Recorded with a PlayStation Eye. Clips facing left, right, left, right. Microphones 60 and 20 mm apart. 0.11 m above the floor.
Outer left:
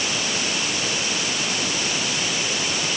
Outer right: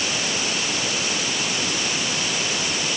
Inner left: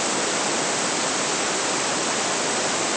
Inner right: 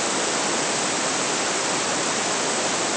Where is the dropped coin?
I don't hear a dropped coin.